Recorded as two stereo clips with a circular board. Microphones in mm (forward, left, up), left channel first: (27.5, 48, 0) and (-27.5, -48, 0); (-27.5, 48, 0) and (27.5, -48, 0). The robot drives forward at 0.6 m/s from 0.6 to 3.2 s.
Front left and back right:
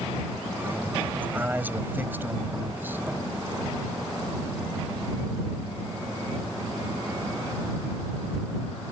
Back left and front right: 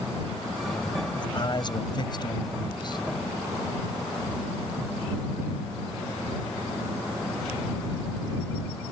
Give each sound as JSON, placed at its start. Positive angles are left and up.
{"t": 1.2, "sound": "a man speaking", "azimuth_deg": 165}